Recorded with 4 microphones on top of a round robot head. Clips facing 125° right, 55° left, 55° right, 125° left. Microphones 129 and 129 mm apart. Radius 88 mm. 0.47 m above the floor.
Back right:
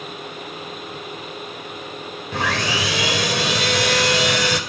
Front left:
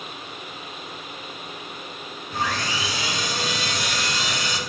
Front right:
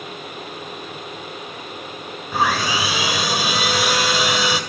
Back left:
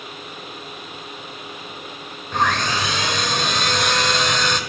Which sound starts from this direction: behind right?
Sawing, at 2.3 s.